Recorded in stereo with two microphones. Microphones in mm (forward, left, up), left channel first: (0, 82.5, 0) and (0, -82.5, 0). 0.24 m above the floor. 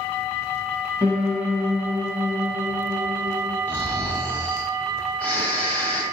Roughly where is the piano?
Centre.